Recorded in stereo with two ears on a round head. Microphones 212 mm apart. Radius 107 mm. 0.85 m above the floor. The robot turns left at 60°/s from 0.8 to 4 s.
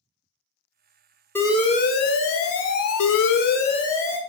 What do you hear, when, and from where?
1.4 s an alarm: 170° left, 0.5 m; by 4.2 s 10° left, 0.5 m